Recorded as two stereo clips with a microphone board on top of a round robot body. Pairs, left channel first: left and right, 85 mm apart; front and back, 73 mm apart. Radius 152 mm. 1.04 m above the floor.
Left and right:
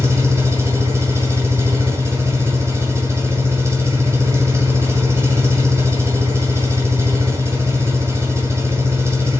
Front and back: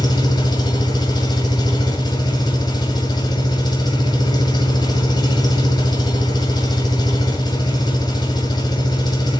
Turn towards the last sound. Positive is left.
turn(degrees=-30)